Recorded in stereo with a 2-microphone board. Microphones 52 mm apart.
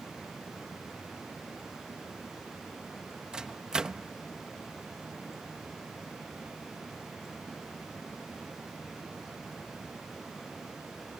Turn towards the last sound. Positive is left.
turn(degrees=-15)  # may be behind; listen again after turning